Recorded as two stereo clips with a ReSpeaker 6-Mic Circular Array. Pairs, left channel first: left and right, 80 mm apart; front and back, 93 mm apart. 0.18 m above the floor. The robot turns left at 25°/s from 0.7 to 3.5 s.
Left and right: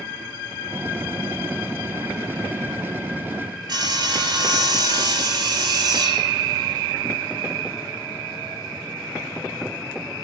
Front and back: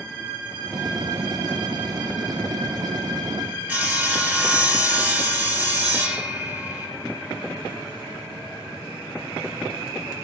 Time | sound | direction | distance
3.7 | sawing | 105° right | 3.5 m